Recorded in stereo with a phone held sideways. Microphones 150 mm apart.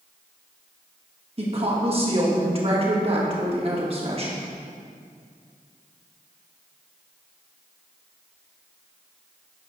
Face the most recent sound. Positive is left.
turn(degrees=-40)  # may be behind; listen again after turning